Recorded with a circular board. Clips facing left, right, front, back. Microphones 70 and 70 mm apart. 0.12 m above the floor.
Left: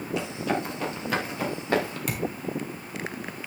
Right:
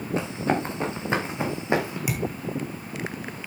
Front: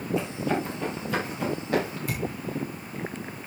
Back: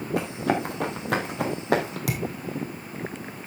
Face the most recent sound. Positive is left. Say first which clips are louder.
# right 2 dB, back 2 dB
turn(degrees=-175)